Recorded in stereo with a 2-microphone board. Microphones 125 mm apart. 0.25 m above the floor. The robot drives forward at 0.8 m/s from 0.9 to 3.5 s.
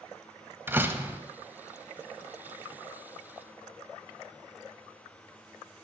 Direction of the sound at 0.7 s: 15° right (ahead or behind).